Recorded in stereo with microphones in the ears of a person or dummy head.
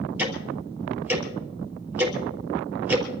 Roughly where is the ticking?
Centre.